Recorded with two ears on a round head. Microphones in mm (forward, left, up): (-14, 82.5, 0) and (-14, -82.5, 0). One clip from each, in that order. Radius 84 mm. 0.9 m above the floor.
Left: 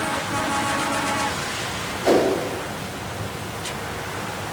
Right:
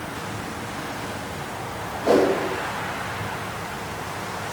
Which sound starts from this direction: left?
A whoosh, at 2.0 s.